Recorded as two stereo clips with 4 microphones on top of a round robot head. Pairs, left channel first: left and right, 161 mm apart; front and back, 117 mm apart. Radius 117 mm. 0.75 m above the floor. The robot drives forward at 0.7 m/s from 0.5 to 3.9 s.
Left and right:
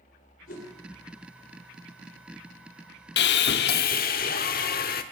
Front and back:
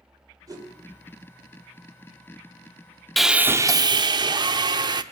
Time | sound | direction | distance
0.5 | a whoosh | 125° left | 3 m
3.2 | sawing | 90° left | 0.6 m